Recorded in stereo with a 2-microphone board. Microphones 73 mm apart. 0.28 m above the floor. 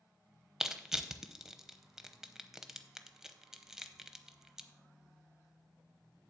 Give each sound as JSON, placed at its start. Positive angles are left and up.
{"t": 0.6, "sound": "crushing", "side_deg": -5, "distance_m": 0.7}